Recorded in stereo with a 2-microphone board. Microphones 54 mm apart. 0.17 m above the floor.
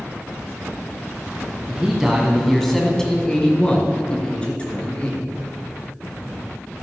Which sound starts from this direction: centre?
A man speaking, at 1.7 s.